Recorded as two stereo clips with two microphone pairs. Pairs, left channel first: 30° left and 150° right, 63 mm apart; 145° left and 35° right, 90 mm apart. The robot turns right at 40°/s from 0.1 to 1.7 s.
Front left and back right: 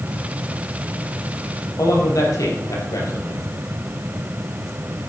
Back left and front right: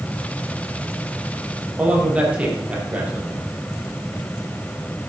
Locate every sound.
1.8 s a man speaking: 40° left, 5 m